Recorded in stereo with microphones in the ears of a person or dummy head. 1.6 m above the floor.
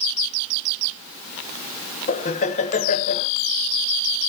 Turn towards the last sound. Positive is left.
turn(degrees=40)  # may be behind; listen again after turning